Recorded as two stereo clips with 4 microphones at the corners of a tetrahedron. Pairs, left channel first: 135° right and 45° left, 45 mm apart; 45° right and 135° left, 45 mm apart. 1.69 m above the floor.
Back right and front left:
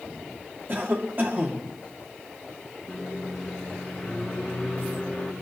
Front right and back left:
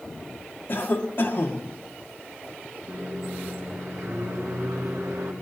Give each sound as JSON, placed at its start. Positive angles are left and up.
{"t": 0.7, "sound": "a cough", "azimuth_deg": 0, "distance_m": 1.8}
{"t": 2.9, "sound": "a microwave", "azimuth_deg": 140, "distance_m": 2.5}